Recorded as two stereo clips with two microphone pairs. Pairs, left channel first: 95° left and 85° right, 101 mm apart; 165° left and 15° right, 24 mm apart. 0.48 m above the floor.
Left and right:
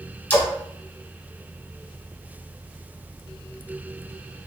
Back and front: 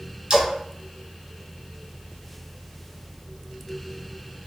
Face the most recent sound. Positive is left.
turn(degrees=25)